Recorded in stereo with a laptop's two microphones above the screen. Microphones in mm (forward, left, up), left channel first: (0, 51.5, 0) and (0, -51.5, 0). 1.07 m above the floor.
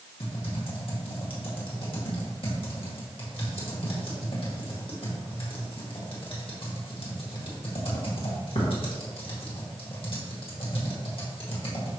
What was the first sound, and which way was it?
Typing on a keyboard, 60° left (ahead or behind).